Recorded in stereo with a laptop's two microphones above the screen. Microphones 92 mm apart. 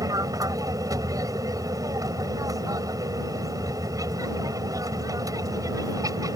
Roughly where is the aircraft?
Right.